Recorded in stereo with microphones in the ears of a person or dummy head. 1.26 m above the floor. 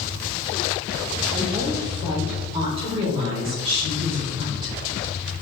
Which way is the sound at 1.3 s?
30° right (ahead or behind).